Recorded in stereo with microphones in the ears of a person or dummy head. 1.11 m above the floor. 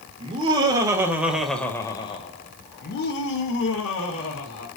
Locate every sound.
0.2 s laughter: 30° right (ahead or behind), 1.2 m; by 4.7 s 85° left, 1.6 m